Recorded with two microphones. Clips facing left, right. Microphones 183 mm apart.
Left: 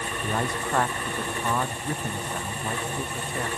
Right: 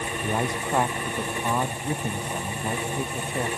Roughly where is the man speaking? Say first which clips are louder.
Right 1 dB; centre.